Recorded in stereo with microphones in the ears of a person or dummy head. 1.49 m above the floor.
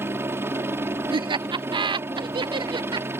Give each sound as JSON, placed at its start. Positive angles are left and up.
{"t": 0.0, "sound": "a helicopter", "side_deg": -15}
{"t": 1.1, "sound": "laughter", "side_deg": -25}